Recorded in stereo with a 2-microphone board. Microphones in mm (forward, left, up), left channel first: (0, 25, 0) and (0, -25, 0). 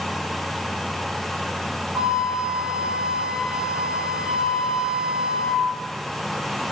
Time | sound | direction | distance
1.9 | a flute | 20° right (ahead or behind) | 1.0 m